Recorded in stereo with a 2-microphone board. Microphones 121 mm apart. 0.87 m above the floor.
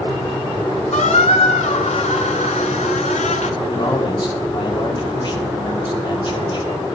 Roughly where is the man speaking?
Left.